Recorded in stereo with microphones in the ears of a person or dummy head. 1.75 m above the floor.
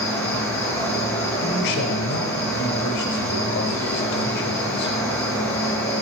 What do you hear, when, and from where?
0.0 s an insect: 10° left (ahead or behind), 1.1 m
1.4 s a man speaking: 60° left (ahead or behind), 0.8 m